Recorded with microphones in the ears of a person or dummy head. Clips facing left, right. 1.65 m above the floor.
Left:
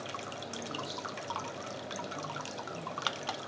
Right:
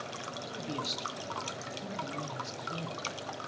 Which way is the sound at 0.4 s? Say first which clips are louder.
Right 5 dB; 40° right (ahead or behind).